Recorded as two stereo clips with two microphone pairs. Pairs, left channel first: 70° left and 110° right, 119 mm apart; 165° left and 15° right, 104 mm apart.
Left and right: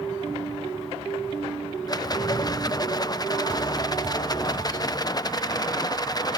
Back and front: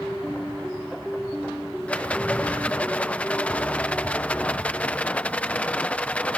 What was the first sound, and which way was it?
A rattle, 95° left.